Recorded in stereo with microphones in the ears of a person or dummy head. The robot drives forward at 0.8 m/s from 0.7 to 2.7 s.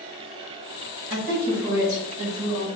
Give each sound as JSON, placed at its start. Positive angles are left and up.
{"t": 1.1, "sound": "a woman speaking", "side_deg": -60, "distance_m": 1.6}